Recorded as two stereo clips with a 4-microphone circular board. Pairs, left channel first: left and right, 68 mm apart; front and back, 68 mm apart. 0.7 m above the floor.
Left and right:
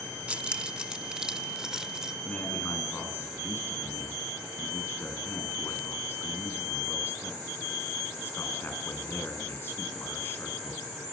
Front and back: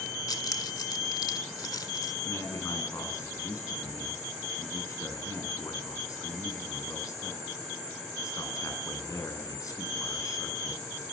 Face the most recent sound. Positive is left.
turn(degrees=35)